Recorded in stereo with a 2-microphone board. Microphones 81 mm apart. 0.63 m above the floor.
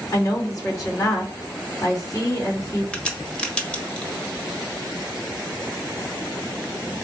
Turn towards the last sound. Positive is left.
turn(degrees=10)  # may be behind; listen again after turning